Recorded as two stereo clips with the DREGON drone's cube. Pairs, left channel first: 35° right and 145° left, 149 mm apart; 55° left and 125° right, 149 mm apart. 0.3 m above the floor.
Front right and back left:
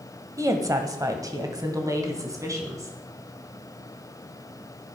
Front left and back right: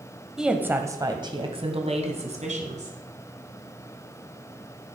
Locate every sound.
0.4 s a woman speaking: 155° left, 1.3 m; by 2.9 s 150° right, 3 m